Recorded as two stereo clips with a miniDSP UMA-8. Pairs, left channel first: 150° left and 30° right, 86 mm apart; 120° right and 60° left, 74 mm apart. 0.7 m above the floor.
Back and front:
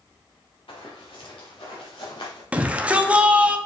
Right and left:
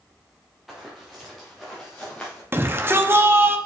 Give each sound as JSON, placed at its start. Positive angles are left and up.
{"t": 0.7, "sound": "running footsteps", "azimuth_deg": 150, "distance_m": 2.5}
{"t": 2.5, "sound": "a shout", "azimuth_deg": 35, "distance_m": 0.8}